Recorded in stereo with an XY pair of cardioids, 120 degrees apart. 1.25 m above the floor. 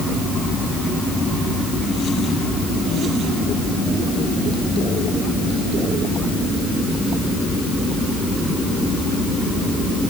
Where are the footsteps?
No footsteps in this recording.